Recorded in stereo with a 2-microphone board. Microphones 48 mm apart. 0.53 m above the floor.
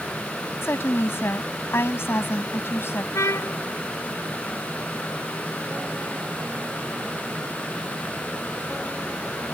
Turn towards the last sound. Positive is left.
turn(degrees=85)